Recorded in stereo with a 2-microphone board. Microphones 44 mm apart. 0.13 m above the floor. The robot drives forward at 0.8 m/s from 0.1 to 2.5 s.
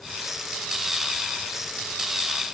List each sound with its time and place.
Only background noise.